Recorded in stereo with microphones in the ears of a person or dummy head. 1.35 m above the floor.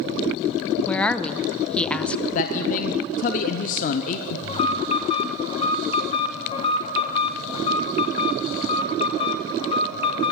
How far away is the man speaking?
About 0.6 m.